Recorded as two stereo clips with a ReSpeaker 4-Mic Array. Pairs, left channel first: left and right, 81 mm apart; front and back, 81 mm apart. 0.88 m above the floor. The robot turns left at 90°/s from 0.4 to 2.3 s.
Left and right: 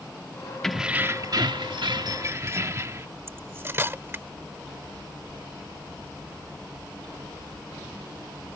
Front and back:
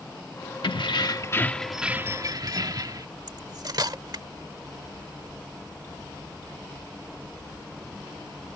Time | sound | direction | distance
0.6 | keys jangling | 5° left | ?
3.3 | cutlery clinking | 150° right | ?